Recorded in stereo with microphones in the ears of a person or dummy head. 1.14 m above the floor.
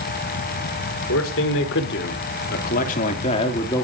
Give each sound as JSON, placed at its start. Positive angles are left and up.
{"t": 1.1, "sound": "a man speaking", "side_deg": 70, "distance_m": 4.0}